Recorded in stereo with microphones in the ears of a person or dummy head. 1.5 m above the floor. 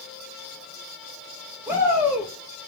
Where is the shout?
10° right (ahead or behind), 4 m.